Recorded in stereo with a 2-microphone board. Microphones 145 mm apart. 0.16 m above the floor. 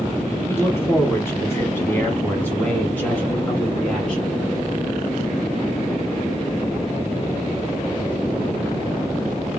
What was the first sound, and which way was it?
A man speaking, 15° left (ahead or behind).